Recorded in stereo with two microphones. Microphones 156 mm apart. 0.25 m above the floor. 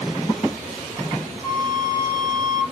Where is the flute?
30° right (ahead or behind), 2.5 m.